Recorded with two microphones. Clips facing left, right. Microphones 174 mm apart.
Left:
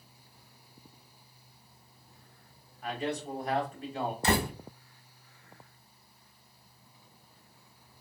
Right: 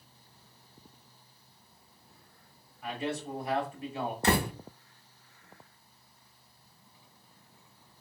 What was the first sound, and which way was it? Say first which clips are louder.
A man speaking: left 1 dB; 5° right (ahead or behind).